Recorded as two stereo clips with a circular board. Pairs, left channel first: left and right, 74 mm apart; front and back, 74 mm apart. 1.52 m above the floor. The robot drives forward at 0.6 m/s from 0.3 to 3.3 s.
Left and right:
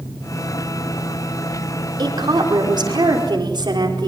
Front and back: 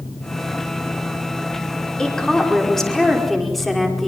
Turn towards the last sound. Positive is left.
turn(degrees=-85)